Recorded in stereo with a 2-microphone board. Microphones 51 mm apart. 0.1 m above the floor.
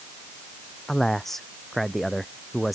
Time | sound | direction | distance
0.9 | a man speaking | 10° left (ahead or behind) | ?